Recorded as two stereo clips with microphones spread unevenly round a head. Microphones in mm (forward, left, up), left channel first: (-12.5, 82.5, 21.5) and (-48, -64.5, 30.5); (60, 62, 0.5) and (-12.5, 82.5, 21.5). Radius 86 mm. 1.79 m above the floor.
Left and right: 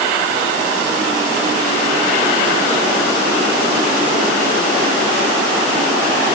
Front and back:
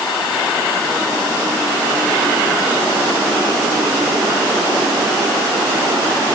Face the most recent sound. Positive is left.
No sound to turn to.